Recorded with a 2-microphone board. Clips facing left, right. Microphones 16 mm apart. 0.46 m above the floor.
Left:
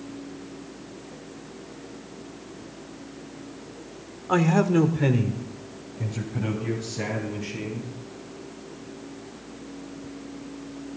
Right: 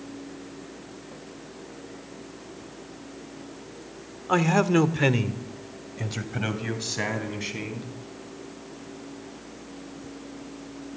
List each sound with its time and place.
4.3 s a man speaking: 5° right (ahead or behind), 1.1 m; by 7.9 s 55° right (ahead or behind), 4 m